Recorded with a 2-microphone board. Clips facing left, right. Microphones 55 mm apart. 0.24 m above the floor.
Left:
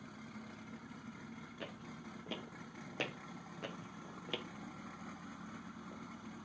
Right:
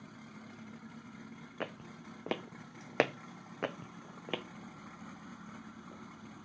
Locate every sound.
1.6 s footsteps: 50° right (ahead or behind), 1.0 m; by 4.4 s 25° right (ahead or behind), 0.9 m